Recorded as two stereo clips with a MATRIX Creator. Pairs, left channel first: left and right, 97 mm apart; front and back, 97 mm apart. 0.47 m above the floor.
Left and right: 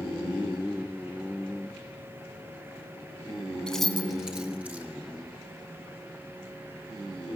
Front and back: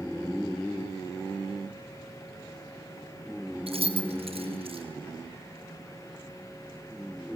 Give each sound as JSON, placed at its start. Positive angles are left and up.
{"t": 3.7, "sound": "keys jangling", "azimuth_deg": 175, "distance_m": 2.5}